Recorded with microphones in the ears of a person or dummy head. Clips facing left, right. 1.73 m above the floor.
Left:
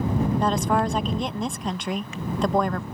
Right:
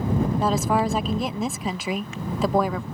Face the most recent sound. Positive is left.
turn(degrees=-10)  # may be behind; listen again after turning